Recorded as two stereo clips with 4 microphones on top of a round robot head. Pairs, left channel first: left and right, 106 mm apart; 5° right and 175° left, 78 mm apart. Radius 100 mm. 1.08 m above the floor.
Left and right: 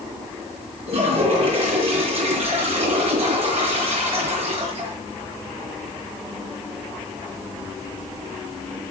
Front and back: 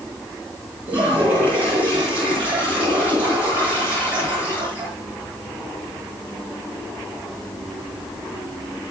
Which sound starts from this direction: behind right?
A toilet flushing, at 0.9 s.